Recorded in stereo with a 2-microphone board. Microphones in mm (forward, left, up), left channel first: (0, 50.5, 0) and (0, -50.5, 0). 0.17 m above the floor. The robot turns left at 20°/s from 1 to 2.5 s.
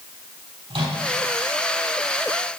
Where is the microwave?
70° right (ahead or behind), 4.5 m.